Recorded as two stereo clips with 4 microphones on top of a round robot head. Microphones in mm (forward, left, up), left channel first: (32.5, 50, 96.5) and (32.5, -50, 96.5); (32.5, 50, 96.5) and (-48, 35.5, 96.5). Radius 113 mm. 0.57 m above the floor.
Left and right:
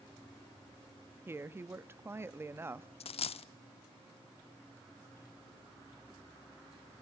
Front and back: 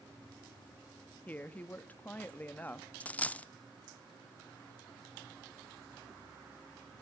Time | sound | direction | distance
1.3 | a woman speaking | 45° right | 0.8 m
3.0 | a dropped coin | 85° left | 0.6 m